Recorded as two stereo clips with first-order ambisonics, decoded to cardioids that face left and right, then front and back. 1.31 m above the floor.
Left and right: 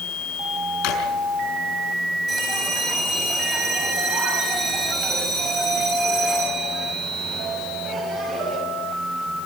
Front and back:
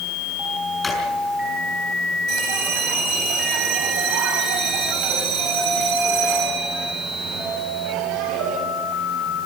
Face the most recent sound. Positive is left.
turn(degrees=-155)